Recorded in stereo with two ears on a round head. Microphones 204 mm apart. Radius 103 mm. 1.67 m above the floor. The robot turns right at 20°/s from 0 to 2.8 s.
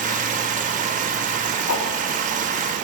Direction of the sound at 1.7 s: 65° left (ahead or behind).